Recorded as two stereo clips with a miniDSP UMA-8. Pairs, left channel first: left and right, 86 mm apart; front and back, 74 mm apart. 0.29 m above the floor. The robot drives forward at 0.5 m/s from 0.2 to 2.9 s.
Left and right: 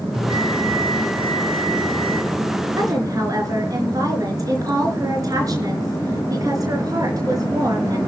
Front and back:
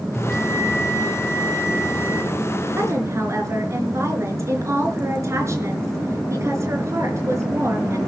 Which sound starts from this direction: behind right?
A woman speaking, at 2.8 s.